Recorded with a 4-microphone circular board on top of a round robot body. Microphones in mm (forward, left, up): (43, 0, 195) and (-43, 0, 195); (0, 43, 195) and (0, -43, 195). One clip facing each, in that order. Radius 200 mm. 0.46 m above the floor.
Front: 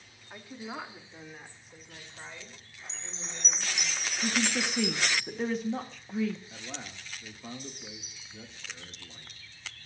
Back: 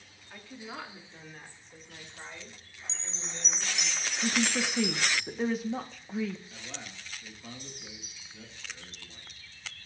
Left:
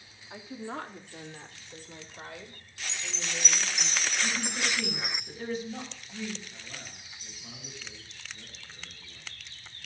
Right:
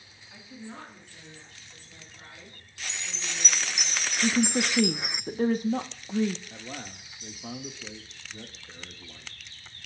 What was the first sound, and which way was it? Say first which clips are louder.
A woman speaking: front 2 dB, left 5 dB; 70° left.